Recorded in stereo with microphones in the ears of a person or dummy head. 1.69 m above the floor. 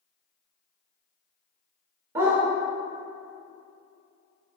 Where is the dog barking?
20° right (ahead or behind), 1.2 m.